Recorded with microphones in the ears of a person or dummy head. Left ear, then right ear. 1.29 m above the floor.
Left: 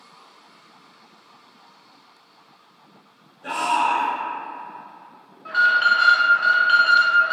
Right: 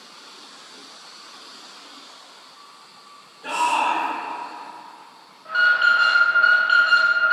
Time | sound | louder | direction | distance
3.4 | a shout | even | 20° right (ahead or behind) | 0.6 m
5.5 | an alarm | even | 5° left (ahead or behind) | 0.5 m